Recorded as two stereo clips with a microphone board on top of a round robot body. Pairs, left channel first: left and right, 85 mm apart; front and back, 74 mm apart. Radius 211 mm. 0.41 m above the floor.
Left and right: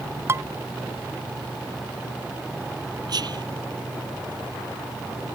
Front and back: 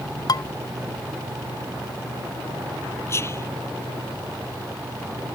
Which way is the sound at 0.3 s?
30° right.